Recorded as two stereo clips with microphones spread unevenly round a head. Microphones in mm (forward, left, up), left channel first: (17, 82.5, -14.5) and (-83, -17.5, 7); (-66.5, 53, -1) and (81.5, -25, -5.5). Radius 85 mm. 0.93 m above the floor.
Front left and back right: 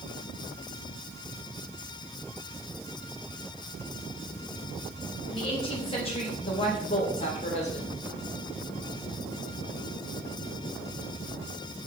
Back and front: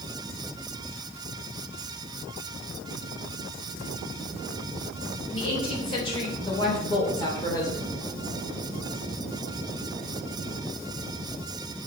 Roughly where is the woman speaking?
Left.